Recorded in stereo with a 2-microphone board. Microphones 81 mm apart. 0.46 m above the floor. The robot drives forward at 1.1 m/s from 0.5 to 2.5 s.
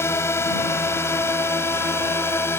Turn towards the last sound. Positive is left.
turn(degrees=30)  # may be behind; listen again after turning